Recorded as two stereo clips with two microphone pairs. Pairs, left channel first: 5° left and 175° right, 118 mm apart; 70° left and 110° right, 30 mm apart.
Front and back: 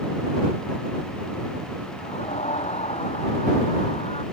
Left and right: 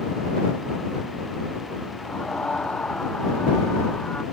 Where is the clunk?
I don't hear a clunk.